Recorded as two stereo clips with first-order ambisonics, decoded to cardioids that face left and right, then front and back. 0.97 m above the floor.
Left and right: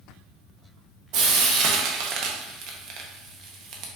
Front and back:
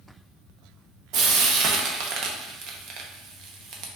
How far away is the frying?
About 0.7 m.